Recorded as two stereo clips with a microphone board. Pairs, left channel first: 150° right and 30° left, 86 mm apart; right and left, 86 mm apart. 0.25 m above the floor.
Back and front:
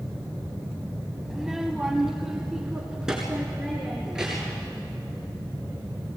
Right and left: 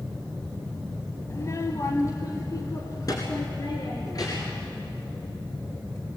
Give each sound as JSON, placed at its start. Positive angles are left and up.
{"t": 1.3, "sound": "a child speaking", "azimuth_deg": -55, "distance_m": 0.8}